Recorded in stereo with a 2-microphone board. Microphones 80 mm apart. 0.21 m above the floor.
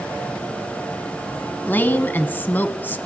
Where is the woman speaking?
25° left (ahead or behind), 1.4 m.